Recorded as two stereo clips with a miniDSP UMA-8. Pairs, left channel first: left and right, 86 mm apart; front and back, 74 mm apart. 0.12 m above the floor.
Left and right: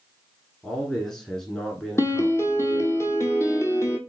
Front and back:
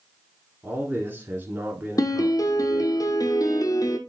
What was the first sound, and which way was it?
A man speaking, 165° left.